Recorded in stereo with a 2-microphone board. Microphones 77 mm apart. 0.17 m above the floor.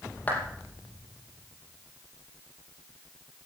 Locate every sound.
0.3 s a clap: 20° left (ahead or behind), 4.5 m